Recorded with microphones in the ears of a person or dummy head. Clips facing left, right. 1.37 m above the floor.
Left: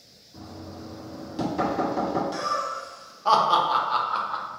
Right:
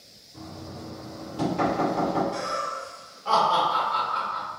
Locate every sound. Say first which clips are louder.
0.3 s knocking: even; 55° left (ahead or behind), 1.5 m
2.3 s laughter: even; 70° left (ahead or behind), 0.6 m